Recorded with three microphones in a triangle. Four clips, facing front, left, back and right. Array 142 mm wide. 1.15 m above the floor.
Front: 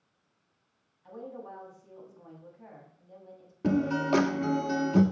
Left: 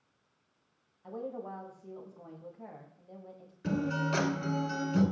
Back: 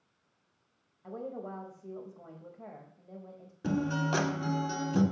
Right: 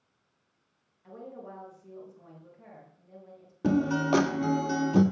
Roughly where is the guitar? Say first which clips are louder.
Right 6 dB, front 4 dB; right.